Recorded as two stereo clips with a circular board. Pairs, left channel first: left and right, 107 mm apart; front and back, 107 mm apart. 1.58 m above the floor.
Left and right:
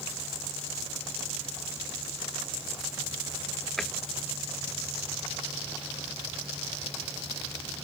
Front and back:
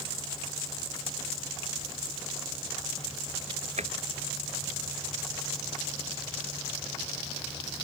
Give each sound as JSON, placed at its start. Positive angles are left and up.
{"t": 3.8, "sound": "a drawer", "azimuth_deg": 175}